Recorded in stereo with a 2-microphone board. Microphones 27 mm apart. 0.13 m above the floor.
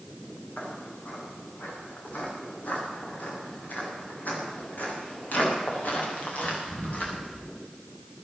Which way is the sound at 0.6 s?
70° left (ahead or behind).